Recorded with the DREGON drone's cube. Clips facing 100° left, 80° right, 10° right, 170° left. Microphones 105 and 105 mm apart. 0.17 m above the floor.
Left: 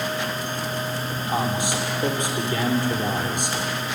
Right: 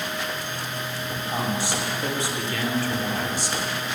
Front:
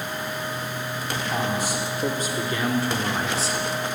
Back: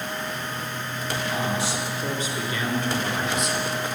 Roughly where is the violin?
I don't hear a violin.